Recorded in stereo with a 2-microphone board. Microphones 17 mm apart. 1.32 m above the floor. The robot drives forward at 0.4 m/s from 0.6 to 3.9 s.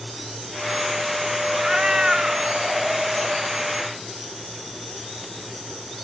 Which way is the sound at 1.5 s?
60° right (ahead or behind).